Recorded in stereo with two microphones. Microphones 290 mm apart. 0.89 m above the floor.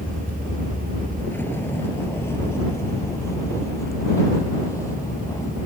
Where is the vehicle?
5° left (ahead or behind); by 5.7 s 10° left (ahead or behind).